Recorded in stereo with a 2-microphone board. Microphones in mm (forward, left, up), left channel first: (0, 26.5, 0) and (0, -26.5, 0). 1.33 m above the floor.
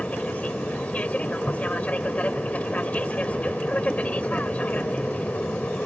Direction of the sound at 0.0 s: 25° left (ahead or behind).